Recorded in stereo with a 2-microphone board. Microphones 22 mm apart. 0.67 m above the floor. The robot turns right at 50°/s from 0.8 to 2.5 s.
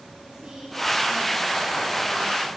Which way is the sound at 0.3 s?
95° right.